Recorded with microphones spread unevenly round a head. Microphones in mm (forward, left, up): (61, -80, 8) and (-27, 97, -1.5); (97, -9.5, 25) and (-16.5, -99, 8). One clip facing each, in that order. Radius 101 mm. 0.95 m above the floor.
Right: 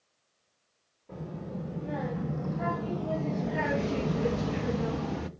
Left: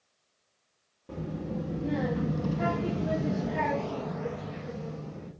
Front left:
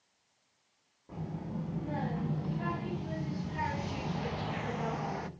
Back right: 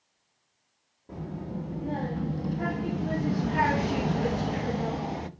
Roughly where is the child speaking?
Behind left.